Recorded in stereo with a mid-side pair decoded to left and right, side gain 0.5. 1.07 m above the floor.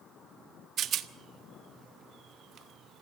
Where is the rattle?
60° right, 1.3 m.